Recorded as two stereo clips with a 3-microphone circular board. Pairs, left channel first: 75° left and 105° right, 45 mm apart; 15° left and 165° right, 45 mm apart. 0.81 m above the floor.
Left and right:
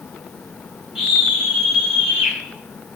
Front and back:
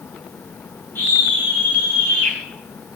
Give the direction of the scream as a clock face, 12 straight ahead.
1 o'clock.